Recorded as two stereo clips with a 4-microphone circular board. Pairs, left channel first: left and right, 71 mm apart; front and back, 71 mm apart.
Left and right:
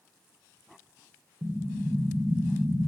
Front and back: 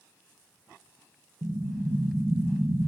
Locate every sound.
1.4 s an explosion: 140° right, 0.9 m